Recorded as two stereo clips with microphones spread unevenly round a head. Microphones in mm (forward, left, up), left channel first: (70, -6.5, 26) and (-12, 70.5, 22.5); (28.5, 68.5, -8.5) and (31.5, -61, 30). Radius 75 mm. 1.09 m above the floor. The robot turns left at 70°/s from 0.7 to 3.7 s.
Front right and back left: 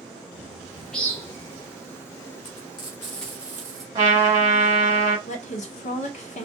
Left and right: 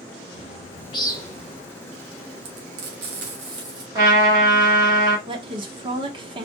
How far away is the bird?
About 2.5 m.